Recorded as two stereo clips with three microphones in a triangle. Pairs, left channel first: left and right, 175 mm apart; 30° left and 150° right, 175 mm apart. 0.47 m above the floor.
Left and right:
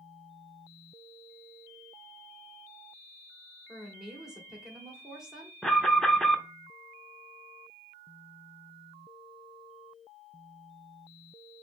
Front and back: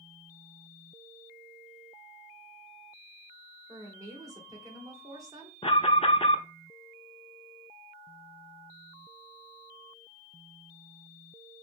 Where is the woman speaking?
170° right, 1.3 m.